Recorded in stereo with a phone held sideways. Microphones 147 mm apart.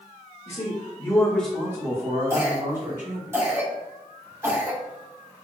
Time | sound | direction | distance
0.5 | a man speaking | 50° left (ahead or behind) | 1.5 m
2.3 | a cough | 20° right (ahead or behind) | 1.4 m